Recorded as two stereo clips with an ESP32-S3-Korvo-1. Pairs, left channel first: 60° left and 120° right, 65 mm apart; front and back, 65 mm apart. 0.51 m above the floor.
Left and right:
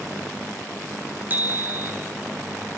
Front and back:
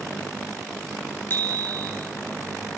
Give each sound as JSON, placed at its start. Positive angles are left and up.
{"t": 1.3, "sound": "a bicycle bell", "azimuth_deg": -55, "distance_m": 6.0}